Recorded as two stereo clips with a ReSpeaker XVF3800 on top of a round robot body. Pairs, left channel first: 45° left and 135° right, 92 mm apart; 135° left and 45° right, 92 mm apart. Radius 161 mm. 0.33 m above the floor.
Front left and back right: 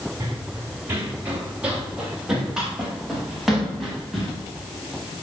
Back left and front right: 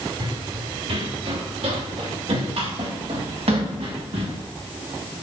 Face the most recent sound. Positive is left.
turn(degrees=-40)